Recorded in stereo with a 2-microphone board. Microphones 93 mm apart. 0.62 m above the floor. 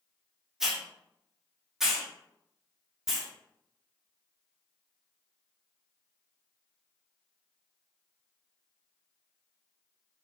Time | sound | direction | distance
0.6 | a hiss | 5° right (ahead or behind) | 0.6 m